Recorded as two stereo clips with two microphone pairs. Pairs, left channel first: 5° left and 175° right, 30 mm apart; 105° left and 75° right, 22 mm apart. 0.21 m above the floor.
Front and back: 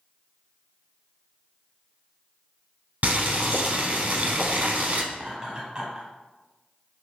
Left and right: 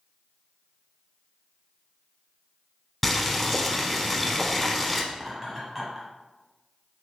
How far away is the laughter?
About 1.1 m.